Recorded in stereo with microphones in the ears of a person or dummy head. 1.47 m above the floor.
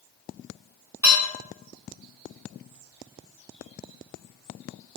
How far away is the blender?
I don't hear a blender.